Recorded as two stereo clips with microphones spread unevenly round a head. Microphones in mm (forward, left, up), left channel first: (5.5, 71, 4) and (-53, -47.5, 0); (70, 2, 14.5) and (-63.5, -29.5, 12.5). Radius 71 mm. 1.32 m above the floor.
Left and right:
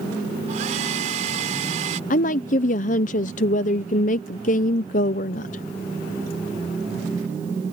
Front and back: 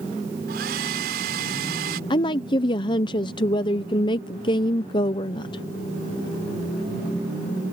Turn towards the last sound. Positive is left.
turn(degrees=65)